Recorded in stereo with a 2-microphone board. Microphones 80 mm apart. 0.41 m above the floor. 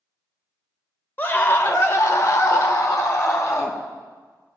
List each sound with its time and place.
1.2 s a scream: 25° left (ahead or behind), 1.1 m; by 3.8 s 40° left (ahead or behind), 1.5 m